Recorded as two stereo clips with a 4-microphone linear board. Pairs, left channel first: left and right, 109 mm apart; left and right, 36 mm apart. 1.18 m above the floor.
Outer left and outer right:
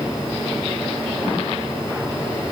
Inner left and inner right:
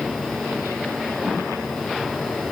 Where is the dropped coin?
I don't hear a dropped coin.